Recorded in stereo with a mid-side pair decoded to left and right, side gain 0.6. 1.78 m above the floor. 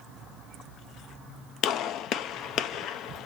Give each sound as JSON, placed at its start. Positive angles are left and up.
{"t": 1.6, "sound": "a gunshot", "azimuth_deg": 60, "distance_m": 0.6}